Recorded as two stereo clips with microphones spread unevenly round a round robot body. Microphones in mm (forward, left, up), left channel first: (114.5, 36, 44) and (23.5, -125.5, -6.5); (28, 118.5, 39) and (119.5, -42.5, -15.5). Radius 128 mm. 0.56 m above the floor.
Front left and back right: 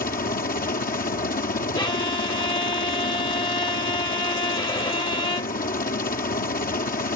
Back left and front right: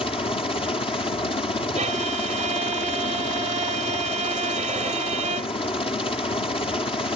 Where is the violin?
10° right.